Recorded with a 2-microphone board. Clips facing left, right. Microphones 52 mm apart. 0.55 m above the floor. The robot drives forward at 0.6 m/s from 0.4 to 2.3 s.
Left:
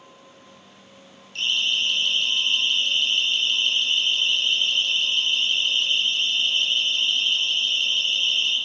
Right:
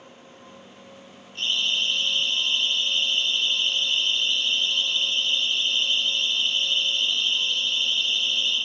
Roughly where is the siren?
Left.